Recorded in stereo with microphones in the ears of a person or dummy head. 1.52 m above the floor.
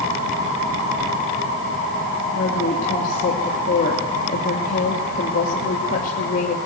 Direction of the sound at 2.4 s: 45° left (ahead or behind).